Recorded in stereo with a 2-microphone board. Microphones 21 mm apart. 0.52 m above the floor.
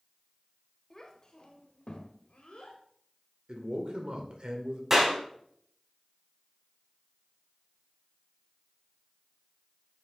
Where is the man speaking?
50° right (ahead or behind), 2.0 m.